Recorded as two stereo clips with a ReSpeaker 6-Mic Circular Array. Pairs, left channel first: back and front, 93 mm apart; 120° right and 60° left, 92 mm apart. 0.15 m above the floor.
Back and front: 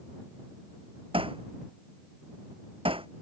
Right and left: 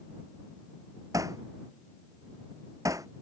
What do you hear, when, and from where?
1.1 s hammering: 5° left